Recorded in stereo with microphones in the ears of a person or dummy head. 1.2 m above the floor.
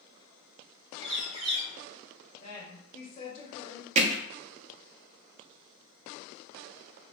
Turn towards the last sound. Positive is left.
turn(degrees=-40)  # may be behind; listen again after turning